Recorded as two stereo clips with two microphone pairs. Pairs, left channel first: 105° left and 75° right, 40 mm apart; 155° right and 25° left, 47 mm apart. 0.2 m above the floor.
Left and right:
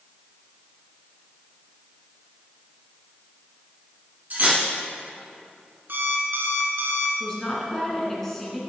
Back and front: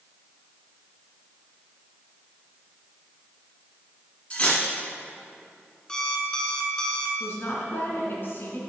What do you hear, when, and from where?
4.3 s cutlery clinking: 100° right, 1.2 m
5.9 s an alarm clock: 85° right, 0.9 m
7.2 s a woman speaking: 170° right, 1.8 m